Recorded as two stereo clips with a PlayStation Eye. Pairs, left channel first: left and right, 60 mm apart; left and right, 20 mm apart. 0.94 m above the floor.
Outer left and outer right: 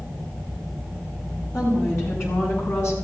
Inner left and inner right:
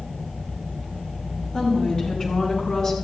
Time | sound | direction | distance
1.5 | a woman speaking | 55° left (ahead or behind) | 7.5 m